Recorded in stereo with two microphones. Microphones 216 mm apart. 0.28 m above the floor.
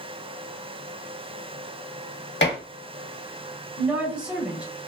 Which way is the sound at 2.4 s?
55° left (ahead or behind).